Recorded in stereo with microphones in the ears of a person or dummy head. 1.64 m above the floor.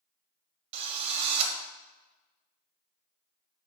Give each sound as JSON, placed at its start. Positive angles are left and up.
{"t": 0.7, "sound": "a drill", "side_deg": -35, "distance_m": 1.0}